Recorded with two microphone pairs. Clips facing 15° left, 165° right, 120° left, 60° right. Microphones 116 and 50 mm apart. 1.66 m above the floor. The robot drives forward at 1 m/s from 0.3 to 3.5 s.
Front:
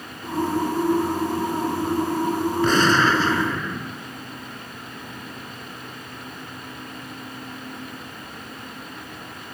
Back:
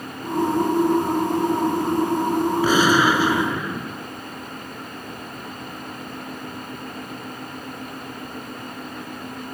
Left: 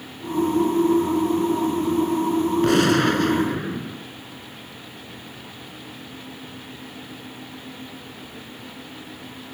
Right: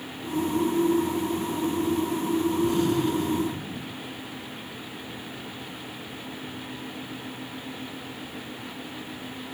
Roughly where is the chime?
No chime in this recording.